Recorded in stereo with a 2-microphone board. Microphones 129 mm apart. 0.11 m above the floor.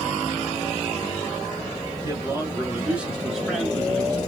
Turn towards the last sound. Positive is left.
turn(degrees=10)  # may be behind; listen again after turning